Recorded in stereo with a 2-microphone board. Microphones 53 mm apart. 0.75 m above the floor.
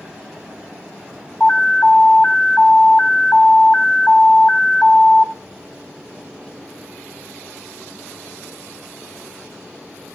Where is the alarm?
35° left (ahead or behind), 1.1 m.